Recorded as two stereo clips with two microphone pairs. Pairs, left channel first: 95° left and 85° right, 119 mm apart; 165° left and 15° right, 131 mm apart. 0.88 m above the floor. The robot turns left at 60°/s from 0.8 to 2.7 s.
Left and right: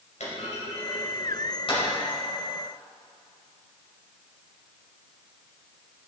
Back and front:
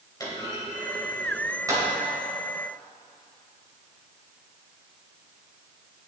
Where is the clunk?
105° left, 3 m; by 1.8 s 40° left, 3 m.